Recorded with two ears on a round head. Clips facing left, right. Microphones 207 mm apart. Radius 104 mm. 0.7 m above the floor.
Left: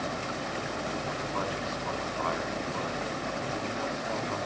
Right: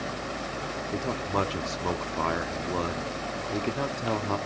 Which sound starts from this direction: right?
A man speaking, at 0.9 s.